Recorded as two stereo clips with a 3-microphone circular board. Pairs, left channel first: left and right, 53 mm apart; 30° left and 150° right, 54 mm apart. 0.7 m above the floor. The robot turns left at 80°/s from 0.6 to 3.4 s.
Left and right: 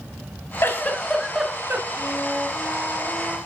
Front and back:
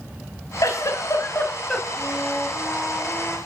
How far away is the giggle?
About 1.9 m.